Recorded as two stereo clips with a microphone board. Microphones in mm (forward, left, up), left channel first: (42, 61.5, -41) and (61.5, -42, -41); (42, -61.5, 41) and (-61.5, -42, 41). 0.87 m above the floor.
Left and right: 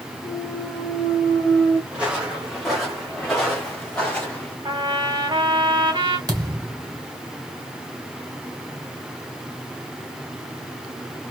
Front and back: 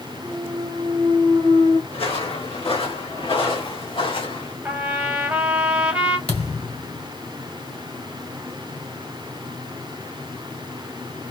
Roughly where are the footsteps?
Ahead.